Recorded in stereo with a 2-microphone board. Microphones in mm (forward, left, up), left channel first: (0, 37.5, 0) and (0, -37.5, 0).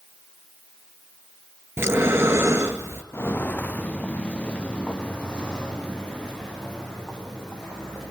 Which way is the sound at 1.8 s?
35° right (ahead or behind).